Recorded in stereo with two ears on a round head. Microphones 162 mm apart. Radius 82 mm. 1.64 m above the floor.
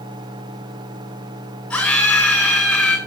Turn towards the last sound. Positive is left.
turn(degrees=5)  # may be behind; listen again after turning